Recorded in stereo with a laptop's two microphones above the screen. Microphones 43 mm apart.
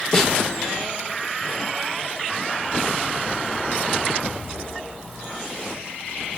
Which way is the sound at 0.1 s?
10° left (ahead or behind).